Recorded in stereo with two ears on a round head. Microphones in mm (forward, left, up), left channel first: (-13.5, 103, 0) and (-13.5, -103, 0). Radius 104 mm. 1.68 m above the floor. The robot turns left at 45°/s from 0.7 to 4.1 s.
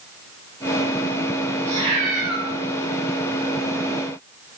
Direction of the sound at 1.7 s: 30° right.